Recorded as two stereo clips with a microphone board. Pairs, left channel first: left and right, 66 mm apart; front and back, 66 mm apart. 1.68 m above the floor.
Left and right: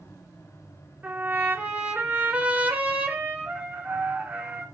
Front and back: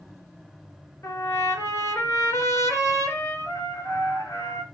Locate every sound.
1.0 s a trumpet: 30° right, 2 m